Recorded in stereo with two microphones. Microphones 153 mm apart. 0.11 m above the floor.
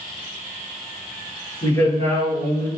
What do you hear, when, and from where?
1.6 s a man speaking: 25° left (ahead or behind), 1.6 m